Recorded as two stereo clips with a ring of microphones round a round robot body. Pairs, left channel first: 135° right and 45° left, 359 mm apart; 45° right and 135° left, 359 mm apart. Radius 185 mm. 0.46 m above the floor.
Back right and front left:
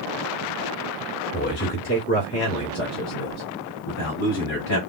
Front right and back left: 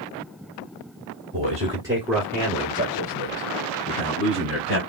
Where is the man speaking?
175° right, 1.6 m; by 4.8 s 85° right, 3 m.